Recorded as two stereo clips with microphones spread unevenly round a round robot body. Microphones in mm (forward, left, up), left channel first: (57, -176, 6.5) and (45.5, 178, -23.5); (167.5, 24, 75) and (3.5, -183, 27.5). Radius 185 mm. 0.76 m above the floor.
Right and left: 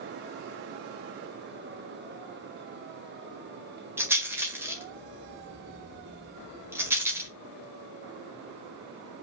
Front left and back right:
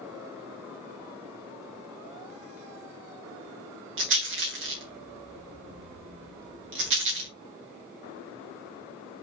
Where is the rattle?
175° left, 1.4 m.